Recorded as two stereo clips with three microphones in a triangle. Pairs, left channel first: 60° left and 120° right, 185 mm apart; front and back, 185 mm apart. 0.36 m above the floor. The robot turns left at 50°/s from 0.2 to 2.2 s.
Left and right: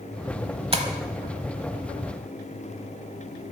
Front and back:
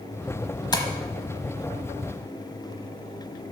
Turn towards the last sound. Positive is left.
turn(degrees=-135)